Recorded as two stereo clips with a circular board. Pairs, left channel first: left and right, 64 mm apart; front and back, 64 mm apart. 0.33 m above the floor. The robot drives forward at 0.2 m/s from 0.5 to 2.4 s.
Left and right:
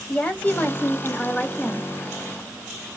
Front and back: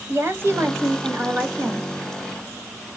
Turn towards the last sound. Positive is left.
turn(degrees=155)